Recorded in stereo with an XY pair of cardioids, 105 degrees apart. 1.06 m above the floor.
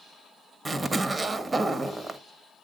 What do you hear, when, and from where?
0.7 s a zipper: 30° right, 1.2 m